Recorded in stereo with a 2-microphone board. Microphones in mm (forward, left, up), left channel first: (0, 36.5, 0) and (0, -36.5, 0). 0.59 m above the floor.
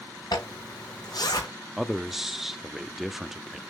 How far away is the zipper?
About 3.5 m.